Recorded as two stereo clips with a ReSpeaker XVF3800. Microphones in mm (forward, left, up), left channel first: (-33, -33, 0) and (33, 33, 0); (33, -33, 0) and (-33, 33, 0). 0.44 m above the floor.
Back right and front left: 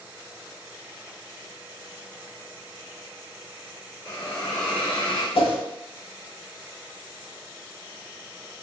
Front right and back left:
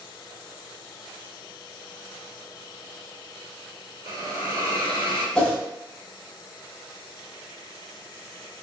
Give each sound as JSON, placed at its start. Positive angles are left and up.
{"t": 4.0, "sound": "a hiss", "azimuth_deg": 155, "distance_m": 1.7}
{"t": 5.3, "sound": "a whoosh", "azimuth_deg": -125, "distance_m": 0.8}